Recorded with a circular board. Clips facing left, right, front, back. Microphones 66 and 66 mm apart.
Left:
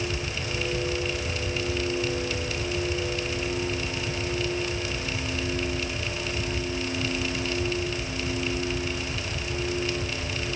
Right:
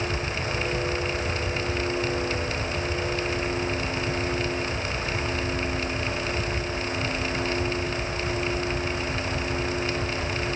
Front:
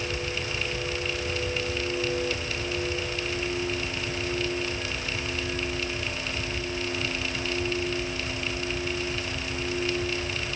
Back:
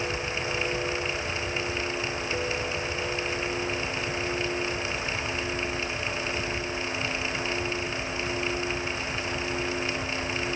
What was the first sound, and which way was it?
Only background noise.